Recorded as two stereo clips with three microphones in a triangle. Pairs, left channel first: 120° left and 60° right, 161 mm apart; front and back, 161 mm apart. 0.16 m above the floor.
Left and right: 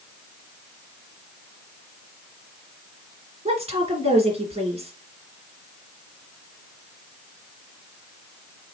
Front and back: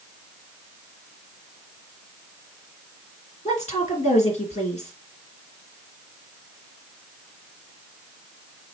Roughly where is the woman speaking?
Ahead right.